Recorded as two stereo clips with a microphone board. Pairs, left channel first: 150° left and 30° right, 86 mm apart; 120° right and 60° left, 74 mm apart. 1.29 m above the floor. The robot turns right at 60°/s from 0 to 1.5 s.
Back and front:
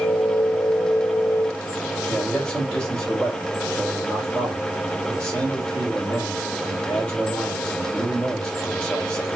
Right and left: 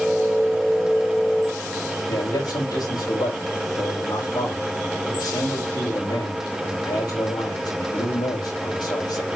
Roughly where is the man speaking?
Behind right.